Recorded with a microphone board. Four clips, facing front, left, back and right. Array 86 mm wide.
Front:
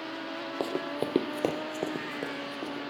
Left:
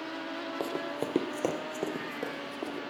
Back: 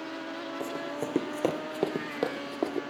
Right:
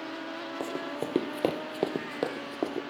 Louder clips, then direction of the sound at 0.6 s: Even, front 4 dB; 15° left.